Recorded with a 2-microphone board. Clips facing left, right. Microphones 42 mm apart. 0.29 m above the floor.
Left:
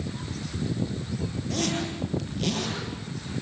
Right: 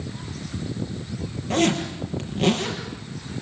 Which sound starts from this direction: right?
A zipper, at 1.5 s.